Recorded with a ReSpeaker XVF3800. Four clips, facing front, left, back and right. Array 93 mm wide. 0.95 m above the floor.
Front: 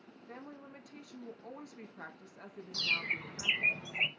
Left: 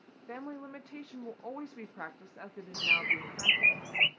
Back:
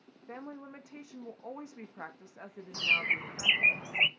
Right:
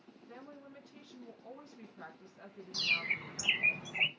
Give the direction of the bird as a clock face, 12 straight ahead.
7 o'clock.